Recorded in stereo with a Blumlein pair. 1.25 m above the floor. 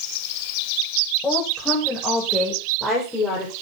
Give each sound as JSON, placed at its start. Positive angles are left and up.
{"t": 1.2, "sound": "a woman speaking", "azimuth_deg": 5, "distance_m": 7.0}